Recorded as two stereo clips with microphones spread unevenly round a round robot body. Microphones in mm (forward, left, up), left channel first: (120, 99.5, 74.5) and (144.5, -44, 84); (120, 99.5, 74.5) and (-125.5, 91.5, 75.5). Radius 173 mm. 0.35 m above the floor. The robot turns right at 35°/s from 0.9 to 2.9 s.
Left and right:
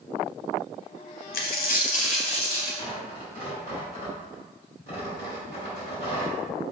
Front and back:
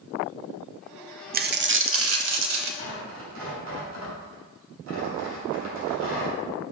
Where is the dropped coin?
125° left, 0.6 m; by 2.8 s 175° left, 0.6 m.